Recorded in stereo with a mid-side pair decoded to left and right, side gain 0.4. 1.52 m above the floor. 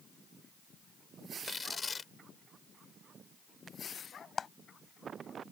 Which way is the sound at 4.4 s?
45° left.